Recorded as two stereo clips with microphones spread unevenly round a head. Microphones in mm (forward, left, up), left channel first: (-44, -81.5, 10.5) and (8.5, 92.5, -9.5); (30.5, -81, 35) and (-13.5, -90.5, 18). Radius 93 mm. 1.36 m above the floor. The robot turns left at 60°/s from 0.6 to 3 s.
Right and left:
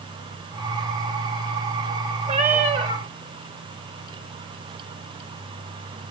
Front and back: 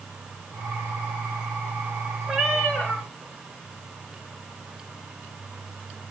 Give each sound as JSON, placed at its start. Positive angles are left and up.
{"t": 2.3, "sound": "a cat meowing", "azimuth_deg": 70, "distance_m": 1.1}